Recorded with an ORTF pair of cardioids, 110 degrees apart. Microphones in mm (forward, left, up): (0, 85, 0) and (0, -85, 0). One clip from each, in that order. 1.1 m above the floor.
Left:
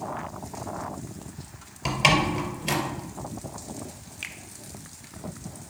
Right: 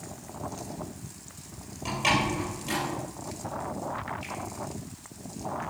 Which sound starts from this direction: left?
A finger snap, at 4.2 s.